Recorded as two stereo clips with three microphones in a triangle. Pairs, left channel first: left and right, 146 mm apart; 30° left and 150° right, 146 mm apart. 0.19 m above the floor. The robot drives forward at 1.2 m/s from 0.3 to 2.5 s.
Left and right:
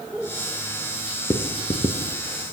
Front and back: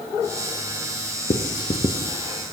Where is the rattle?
I don't hear a rattle.